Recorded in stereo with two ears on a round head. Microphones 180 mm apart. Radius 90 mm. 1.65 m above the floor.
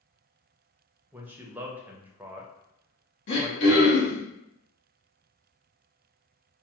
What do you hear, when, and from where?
1.1 s a man speaking: 10° right (ahead or behind), 0.6 m
3.3 s throat clearing: 65° left (ahead or behind), 1.1 m